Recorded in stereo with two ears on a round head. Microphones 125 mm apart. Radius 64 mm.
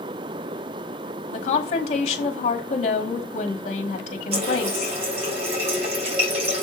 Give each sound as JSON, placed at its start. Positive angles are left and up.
{"t": 1.3, "sound": "a woman speaking", "side_deg": 50, "distance_m": 2.0}
{"t": 4.3, "sound": "a running tap", "side_deg": -50, "distance_m": 3.0}